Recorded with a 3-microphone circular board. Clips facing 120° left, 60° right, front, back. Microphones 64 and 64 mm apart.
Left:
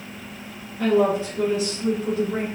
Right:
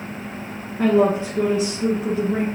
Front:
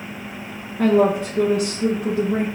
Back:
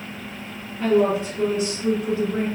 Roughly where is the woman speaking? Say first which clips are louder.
Right 2 dB, front 2 dB; ahead.